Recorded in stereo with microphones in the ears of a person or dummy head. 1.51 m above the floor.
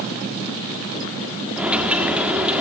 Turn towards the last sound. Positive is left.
turn(degrees=-10)  # may be behind; listen again after turning